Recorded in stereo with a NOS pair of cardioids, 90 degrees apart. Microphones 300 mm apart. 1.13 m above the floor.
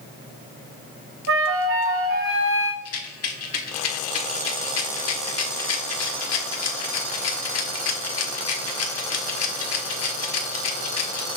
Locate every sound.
1.3 s a flute: 45° right, 1.5 m
2.9 s a rattle: 60° left, 1.6 m